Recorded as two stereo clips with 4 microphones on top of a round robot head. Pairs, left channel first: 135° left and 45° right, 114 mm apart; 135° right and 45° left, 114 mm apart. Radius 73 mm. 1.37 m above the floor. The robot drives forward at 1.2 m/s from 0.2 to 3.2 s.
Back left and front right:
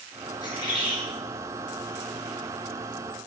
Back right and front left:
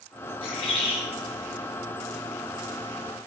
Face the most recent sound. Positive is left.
turn(degrees=-175)